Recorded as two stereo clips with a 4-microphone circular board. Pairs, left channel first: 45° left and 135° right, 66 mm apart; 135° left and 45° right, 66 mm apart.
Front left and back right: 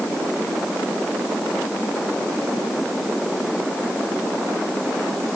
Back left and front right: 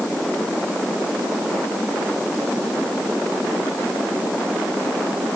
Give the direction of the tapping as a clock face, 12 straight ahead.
No tapping in this recording.